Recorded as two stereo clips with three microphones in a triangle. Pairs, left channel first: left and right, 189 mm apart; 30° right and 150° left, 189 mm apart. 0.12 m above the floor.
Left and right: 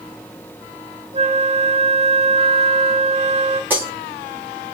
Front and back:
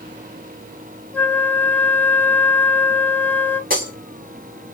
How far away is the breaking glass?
About 5 m.